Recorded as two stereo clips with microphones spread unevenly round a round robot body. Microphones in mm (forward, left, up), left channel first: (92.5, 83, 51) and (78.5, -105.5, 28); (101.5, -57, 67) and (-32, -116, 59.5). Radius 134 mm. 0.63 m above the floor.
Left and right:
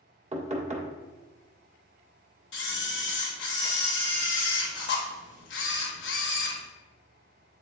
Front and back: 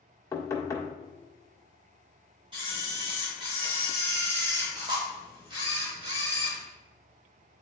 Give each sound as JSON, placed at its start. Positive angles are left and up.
{"t": 0.3, "sound": "knocking", "azimuth_deg": -45, "distance_m": 1.6}
{"t": 2.5, "sound": "a camera shutter", "azimuth_deg": 135, "distance_m": 0.8}